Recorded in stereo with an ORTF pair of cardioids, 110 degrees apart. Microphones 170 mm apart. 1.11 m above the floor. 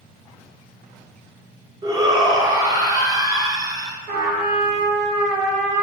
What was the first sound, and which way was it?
A shout, 20° right.